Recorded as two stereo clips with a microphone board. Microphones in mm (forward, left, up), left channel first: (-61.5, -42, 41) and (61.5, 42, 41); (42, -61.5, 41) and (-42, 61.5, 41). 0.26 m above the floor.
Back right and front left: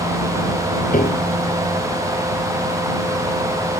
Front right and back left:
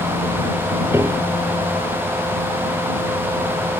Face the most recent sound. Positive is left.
turn(degrees=-165)